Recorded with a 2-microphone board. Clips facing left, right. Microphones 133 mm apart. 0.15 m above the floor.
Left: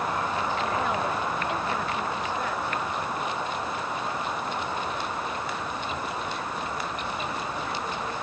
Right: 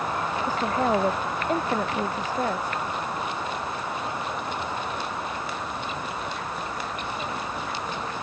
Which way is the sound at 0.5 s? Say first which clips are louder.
Right 3 dB; 40° right (ahead or behind).